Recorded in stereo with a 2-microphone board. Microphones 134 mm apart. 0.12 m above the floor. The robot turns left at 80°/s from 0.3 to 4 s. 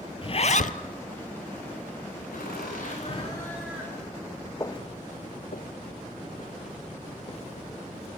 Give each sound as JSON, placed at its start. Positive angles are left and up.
{"t": 0.2, "sound": "a zipper", "azimuth_deg": 135, "distance_m": 0.7}
{"t": 2.3, "sound": "laughter", "azimuth_deg": 105, "distance_m": 10.0}
{"t": 4.6, "sound": "footsteps", "side_deg": 25, "distance_m": 1.0}